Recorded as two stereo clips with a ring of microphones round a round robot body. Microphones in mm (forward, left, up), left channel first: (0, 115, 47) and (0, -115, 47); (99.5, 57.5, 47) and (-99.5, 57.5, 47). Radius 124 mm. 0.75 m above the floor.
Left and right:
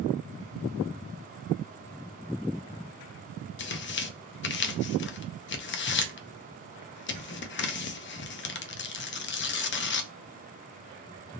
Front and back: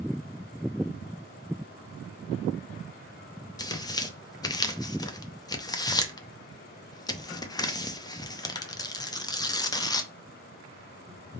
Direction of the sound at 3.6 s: 70° left.